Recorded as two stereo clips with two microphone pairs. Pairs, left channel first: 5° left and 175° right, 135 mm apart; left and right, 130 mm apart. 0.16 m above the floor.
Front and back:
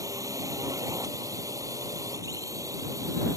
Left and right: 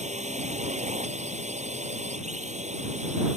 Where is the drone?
110° right.